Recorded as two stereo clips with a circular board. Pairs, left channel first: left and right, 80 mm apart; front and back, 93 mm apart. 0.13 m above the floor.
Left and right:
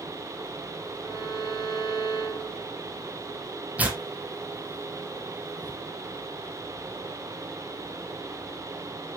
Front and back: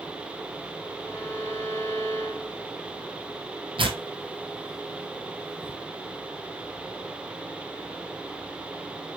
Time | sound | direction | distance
1.0 | a violin | 65° right | 4 m
3.8 | tearing paper | 160° right | 1.0 m